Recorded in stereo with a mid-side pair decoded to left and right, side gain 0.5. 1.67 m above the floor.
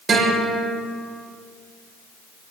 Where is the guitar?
45° right, 6 m.